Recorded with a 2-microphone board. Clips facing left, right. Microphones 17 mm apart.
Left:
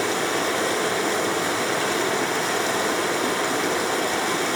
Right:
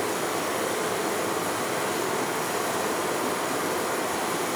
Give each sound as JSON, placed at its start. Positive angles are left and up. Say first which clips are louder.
{"t": 0.0, "sound": "running water", "louder": "left 4 dB", "side_deg": 65, "distance_m": 1.3}